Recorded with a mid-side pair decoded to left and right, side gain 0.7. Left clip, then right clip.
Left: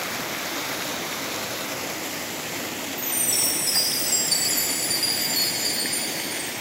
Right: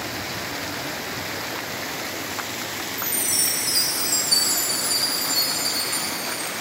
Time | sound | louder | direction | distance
3.0 | a chime | even | straight ahead | 2.5 m